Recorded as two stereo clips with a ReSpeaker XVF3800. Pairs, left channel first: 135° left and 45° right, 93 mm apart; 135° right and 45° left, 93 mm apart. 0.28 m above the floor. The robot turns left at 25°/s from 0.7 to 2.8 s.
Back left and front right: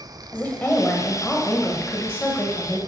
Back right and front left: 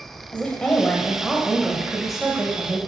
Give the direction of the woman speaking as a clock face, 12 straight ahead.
7 o'clock.